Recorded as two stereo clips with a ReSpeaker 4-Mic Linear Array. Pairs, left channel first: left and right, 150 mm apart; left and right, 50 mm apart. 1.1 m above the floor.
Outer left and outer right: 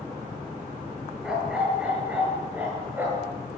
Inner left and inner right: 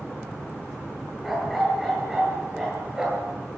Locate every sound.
1.2 s a dog barking: 5° right (ahead or behind), 8.5 m; by 3.3 s 15° right (ahead or behind), 9 m